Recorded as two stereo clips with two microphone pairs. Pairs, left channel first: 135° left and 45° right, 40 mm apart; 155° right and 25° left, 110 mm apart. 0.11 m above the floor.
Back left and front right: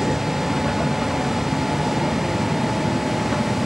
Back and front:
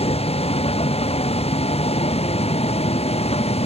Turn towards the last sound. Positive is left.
turn(degrees=-130)